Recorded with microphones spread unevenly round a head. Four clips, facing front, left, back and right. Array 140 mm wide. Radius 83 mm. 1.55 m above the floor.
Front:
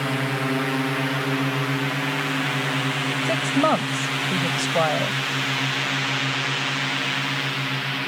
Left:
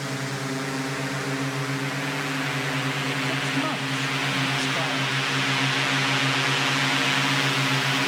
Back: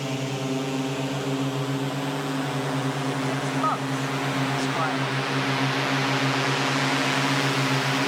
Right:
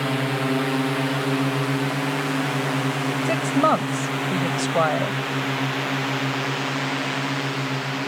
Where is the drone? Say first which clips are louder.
Right 7 dB, front 4 dB; 90° right; by 8.1 s straight behind.